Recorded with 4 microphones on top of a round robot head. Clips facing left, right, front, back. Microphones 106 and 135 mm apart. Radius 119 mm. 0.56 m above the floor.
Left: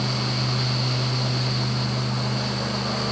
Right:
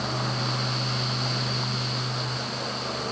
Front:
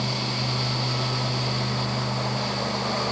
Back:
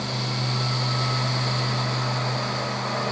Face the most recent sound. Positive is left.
No sound to turn to.